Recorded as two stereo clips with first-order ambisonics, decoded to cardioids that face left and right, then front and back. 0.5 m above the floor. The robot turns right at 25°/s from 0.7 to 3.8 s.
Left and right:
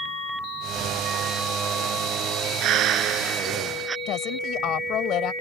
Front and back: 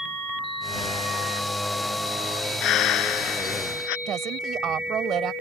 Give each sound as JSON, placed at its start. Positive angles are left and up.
{"t": 2.6, "sound": "breathing", "azimuth_deg": -45}
{"t": 4.1, "sound": "a woman speaking", "azimuth_deg": 130}